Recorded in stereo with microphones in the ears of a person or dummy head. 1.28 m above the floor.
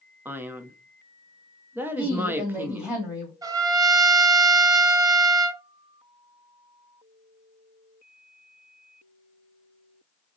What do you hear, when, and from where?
0.2 s a man speaking: 5° right (ahead or behind), 0.6 m
2.0 s a woman speaking: 10° right (ahead or behind), 2.5 m
3.4 s a trumpet: 15° right (ahead or behind), 0.6 m